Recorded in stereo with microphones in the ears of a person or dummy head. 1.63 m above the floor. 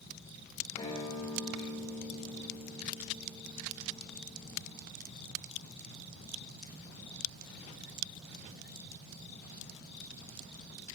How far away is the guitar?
About 3 m.